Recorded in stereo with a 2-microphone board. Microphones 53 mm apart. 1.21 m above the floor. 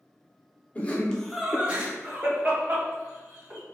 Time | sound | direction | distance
0.8 | laughter | 25° left (ahead or behind) | 0.8 m